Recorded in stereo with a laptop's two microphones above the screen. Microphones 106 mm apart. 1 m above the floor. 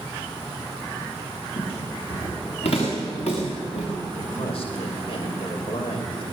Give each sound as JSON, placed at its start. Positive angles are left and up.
{"t": 1.6, "sound": "footsteps", "side_deg": 70, "distance_m": 7.5}
{"t": 4.2, "sound": "a man speaking", "side_deg": 65, "distance_m": 5.5}